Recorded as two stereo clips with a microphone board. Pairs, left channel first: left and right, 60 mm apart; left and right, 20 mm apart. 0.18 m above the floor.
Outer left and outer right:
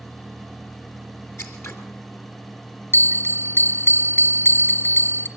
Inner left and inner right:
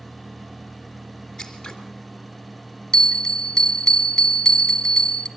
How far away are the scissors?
About 3 m.